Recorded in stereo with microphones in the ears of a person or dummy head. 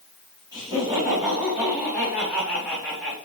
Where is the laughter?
25° right (ahead or behind), 4.5 m; by 3.1 s centre (ahead or behind), 4 m.